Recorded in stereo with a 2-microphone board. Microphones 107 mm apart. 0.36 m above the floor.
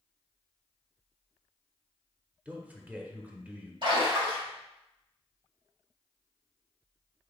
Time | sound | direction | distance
2.5 | a man speaking | 15° right (ahead or behind) | 0.9 m
3.8 | a splash | 50° right (ahead or behind) | 2 m